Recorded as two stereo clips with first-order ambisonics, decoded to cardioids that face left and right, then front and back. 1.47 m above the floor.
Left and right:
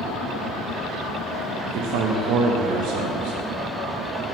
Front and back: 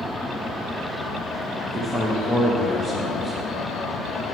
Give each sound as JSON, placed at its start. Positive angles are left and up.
{"t": 1.7, "sound": "a man speaking", "azimuth_deg": -95, "distance_m": 0.9}